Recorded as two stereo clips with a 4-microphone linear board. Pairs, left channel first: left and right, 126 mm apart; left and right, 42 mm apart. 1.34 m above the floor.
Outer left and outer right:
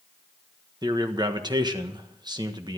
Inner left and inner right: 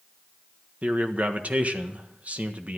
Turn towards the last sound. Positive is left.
turn(degrees=-35)  # may be behind; listen again after turning